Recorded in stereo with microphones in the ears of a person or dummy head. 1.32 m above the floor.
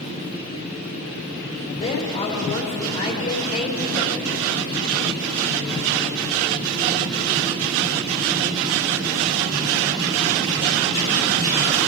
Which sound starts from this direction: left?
A woman speaking, at 1.7 s.